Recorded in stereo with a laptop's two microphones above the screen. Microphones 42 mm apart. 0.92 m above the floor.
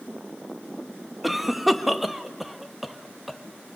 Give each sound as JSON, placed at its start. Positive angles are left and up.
{"t": 1.2, "sound": "a cough", "side_deg": -5, "distance_m": 1.5}